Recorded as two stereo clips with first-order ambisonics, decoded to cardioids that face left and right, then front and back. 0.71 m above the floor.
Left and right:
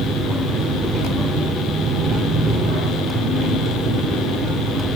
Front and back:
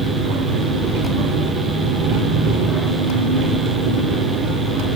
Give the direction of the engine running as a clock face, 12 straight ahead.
5 o'clock.